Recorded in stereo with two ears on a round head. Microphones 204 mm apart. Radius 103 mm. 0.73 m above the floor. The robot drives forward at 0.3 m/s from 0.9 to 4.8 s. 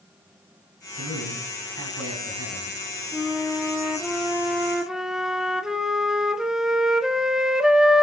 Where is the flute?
Centre (ahead or behind), 1.6 m; by 8.0 s 5° right (ahead or behind), 1.2 m.